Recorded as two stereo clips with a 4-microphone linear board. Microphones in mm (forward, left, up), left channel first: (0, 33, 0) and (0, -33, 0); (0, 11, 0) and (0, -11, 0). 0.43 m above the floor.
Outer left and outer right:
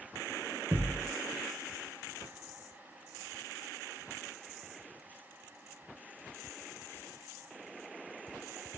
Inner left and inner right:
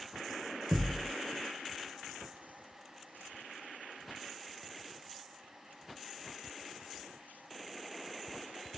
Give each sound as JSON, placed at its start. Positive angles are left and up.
{"t": 0.7, "sound": "a thud", "side_deg": -40, "distance_m": 0.5}